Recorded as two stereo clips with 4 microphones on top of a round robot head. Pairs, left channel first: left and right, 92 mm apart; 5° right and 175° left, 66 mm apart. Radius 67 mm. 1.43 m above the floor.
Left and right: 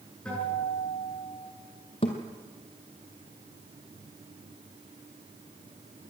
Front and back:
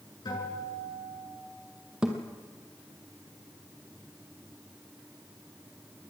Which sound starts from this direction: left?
A thud, at 2.0 s.